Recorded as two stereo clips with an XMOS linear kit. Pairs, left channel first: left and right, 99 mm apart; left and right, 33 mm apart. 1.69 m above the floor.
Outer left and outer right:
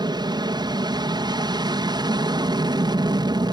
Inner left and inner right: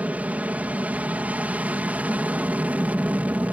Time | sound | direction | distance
0.0 | an aircraft | 45° right (ahead or behind) | ?